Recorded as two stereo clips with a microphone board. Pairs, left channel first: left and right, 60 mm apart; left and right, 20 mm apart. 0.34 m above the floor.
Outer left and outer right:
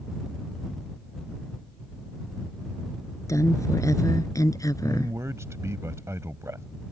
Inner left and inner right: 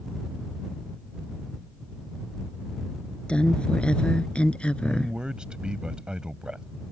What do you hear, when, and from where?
3.3 s a woman speaking: 60° left (ahead or behind); by 5.2 s 75° left (ahead or behind)
4.8 s a man speaking: 55° right (ahead or behind)